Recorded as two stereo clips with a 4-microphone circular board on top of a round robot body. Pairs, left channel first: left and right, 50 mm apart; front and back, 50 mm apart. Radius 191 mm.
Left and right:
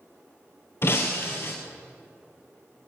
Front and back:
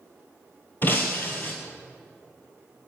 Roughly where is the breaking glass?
Ahead left.